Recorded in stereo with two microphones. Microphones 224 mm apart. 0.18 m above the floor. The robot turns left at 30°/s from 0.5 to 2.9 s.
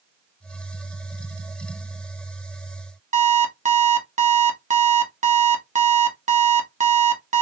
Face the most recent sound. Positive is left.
turn(degrees=-30)  # may be behind; listen again after turning